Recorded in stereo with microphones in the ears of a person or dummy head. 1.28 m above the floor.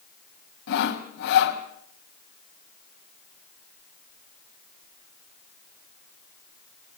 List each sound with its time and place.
0.7 s sawing: 60° left (ahead or behind), 2.5 m